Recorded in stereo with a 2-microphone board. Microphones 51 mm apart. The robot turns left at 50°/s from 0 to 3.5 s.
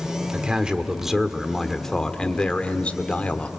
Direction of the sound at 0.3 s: 20° right (ahead or behind).